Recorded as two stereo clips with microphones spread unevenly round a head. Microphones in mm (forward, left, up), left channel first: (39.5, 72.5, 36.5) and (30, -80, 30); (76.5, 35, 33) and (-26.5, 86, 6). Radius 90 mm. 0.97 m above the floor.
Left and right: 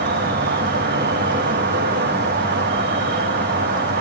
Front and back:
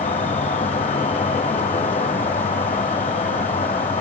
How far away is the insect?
About 1.5 m.